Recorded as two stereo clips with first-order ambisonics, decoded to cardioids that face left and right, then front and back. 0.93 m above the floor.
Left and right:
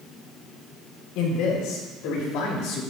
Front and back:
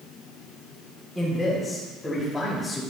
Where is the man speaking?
85° left, 5 m; by 2.8 s 80° left, 3.5 m.